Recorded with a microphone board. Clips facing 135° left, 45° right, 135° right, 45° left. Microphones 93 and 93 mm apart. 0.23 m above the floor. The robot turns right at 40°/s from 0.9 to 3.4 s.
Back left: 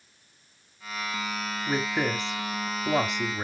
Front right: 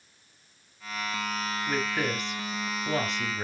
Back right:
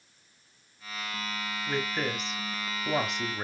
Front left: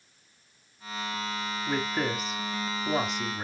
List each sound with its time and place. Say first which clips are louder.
1.7 s a woman speaking: back left 3 dB, front left 2 dB; 105° left, 1.2 m; by 3.4 s 175° left, 1.2 m